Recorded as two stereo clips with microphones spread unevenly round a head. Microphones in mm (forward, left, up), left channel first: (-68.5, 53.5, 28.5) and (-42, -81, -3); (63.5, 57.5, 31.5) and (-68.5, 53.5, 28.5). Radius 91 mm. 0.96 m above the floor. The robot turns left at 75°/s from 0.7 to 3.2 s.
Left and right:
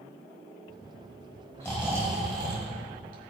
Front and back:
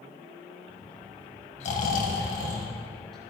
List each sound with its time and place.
1.6 s snoring: 30° left, 2 m; by 3.3 s 90° right, 2 m